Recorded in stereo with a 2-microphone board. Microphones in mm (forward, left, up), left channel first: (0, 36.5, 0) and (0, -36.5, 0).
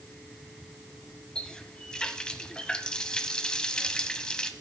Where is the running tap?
15° left (ahead or behind), 1.0 m.